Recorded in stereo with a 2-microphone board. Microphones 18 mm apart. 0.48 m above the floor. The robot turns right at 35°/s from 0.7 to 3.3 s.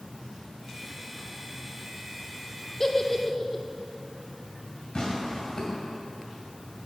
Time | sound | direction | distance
2.8 | a giggle | 25° left (ahead or behind) | 0.6 m
5.0 | tearing paper | 45° left (ahead or behind) | 2 m